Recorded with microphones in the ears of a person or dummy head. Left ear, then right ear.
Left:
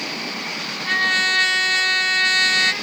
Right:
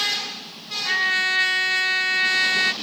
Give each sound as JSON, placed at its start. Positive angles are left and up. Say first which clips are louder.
{"t": 0.8, "sound": "a trumpet", "louder": "left 2 dB", "side_deg": -5}